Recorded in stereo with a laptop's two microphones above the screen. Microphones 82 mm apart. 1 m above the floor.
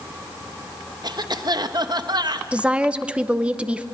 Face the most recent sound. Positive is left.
turn(degrees=-15)  # may be behind; listen again after turning